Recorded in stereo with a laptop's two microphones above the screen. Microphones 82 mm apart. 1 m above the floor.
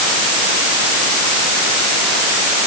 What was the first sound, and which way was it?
Only background noise.